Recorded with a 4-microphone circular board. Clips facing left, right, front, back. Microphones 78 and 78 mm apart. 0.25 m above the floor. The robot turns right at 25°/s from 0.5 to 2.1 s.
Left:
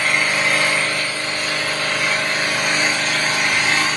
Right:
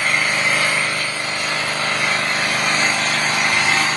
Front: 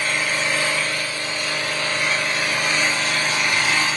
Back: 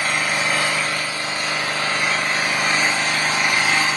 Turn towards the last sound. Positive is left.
turn(degrees=-135)